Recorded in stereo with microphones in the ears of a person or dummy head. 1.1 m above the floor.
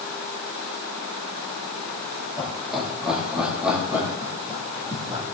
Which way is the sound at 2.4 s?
15° left (ahead or behind).